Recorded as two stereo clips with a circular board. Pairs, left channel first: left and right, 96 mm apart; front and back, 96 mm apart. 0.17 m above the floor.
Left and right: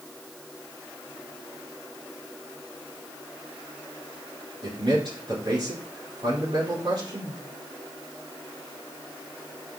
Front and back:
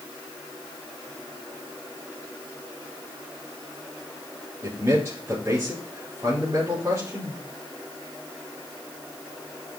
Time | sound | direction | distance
4.6 | a man speaking | 120° right | 4 m